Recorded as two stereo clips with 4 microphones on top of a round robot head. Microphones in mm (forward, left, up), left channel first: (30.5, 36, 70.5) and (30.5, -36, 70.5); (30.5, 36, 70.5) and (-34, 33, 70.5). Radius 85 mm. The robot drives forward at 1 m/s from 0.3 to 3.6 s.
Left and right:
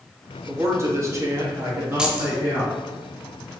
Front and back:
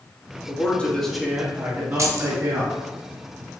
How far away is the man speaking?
About 1.3 m.